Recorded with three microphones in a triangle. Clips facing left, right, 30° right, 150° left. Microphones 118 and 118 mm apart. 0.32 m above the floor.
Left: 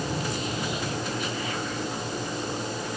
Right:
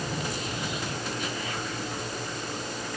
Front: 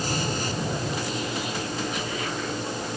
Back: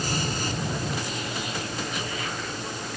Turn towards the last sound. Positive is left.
No sound to turn to.